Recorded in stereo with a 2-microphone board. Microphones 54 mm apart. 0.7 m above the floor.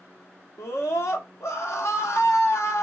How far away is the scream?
About 1.8 m.